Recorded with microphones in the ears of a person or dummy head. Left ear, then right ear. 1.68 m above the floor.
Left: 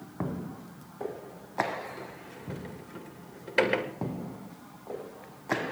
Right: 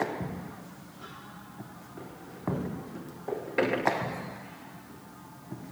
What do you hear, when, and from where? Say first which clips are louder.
2.0 s a sliding door: left 2 dB; 30° left (ahead or behind), 2.0 m